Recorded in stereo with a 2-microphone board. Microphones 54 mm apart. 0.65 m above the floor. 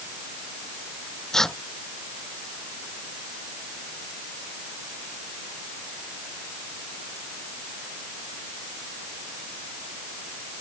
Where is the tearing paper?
10° left (ahead or behind).